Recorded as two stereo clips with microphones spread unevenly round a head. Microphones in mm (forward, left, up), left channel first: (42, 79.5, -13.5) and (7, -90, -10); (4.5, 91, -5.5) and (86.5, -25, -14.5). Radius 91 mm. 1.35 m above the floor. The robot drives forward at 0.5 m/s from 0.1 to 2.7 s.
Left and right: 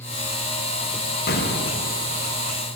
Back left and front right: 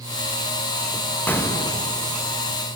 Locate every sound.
1.3 s an explosion: 50° left, 0.9 m; by 2.0 s 75° left, 0.8 m